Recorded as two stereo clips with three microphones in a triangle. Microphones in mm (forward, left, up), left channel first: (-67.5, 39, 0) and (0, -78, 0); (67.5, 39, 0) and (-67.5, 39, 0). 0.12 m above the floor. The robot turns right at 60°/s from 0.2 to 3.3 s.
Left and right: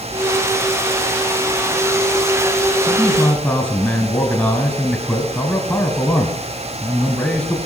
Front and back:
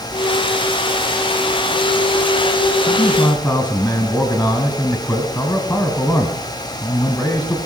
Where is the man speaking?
35° left, 1.5 m; by 7.6 s 65° left, 1.5 m.